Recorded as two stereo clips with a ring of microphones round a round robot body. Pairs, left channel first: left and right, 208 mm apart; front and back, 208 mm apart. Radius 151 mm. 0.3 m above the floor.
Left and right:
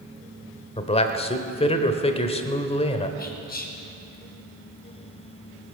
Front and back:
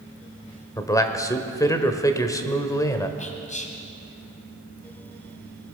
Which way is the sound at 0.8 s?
60° left.